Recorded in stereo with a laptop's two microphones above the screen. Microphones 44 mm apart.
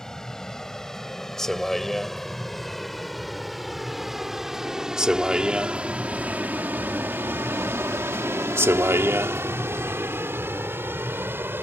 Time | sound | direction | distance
0.0 | a vehicle | 15° left (ahead or behind) | ?